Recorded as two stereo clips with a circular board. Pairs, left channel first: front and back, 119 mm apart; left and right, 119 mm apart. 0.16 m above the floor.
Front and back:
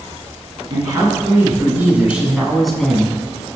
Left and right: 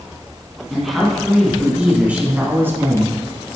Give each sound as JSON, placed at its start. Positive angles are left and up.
{"t": 0.7, "sound": "a man speaking", "azimuth_deg": 175, "distance_m": 1.5}